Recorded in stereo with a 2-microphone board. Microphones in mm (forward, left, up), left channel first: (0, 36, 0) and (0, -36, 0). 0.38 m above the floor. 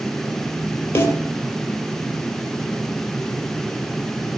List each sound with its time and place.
0.9 s a snare drum: 35° left (ahead or behind), 4 m